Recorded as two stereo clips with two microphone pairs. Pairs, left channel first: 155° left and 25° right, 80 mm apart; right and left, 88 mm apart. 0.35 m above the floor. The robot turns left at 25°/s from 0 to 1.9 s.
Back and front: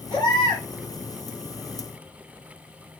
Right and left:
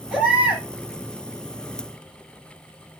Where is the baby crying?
175° left, 5 m; by 0.6 s 160° left, 5 m.